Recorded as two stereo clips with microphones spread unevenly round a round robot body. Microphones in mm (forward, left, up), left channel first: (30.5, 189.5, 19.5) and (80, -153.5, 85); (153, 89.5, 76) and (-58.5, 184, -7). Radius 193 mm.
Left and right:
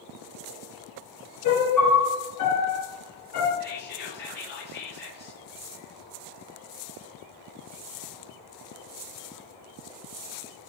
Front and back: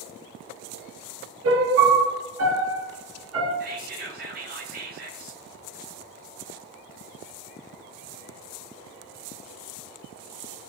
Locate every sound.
1.4 s a piano: 140° left, 2.5 m
3.6 s whispering: 145° left, 1.6 m